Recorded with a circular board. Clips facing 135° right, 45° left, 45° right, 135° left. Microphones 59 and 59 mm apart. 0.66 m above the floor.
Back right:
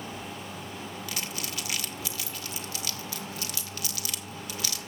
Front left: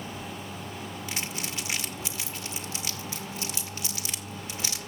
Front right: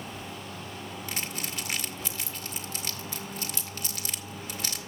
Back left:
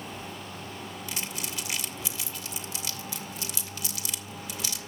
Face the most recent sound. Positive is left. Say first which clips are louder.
# front left 2 dB, front right 1 dB
turn(degrees=-15)